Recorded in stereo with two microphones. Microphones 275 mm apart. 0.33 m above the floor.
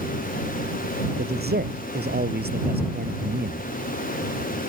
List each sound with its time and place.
1.2 s a man speaking: 35° right (ahead or behind)